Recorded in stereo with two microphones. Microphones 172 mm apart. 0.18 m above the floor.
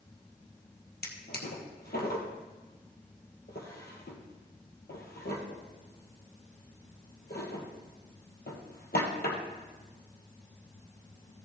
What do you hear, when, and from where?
1.0 s a drawer: 70° left (ahead or behind), 2.0 m